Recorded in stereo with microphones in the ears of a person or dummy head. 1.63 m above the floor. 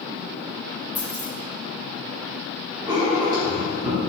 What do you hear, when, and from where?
0.9 s keys jangling: 10° left (ahead or behind), 1.5 m
2.9 s writing: 25° right (ahead or behind), 1.1 m